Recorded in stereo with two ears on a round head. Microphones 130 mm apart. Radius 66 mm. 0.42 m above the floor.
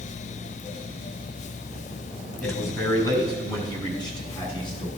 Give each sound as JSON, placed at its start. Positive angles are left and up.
{"t": 2.4, "sound": "a man speaking", "side_deg": 20, "distance_m": 3.0}